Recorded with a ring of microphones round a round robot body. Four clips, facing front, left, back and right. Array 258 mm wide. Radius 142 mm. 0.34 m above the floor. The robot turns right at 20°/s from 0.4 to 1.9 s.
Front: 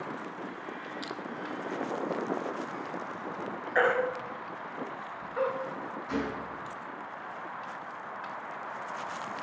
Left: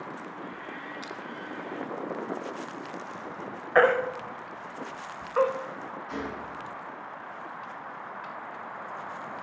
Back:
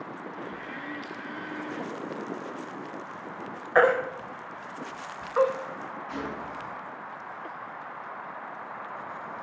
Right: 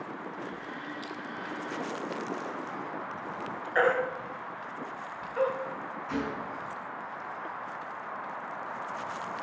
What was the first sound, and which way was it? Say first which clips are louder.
Crushing: even, front 1 dB; 35° left.